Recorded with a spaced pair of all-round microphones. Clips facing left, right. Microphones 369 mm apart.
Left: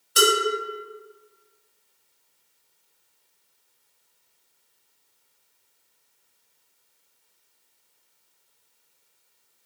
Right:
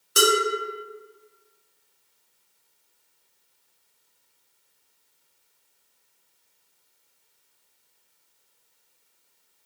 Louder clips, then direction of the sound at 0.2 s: Even; 60° right (ahead or behind).